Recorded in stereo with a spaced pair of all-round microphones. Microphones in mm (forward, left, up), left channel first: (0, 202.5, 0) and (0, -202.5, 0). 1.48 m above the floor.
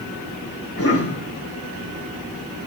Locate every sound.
0.8 s a cough: 35° left (ahead or behind), 1.0 m